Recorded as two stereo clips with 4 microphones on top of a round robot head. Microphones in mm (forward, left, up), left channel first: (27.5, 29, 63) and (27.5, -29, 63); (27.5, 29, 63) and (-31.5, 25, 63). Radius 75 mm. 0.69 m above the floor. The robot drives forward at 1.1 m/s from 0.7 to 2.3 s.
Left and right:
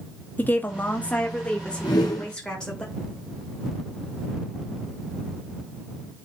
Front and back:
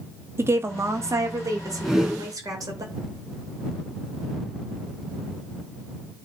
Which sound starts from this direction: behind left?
A woman speaking, at 0.4 s.